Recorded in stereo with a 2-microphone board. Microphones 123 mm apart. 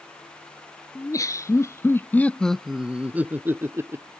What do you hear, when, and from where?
0.9 s laughter: 30° left (ahead or behind); by 4.1 s 25° right (ahead or behind)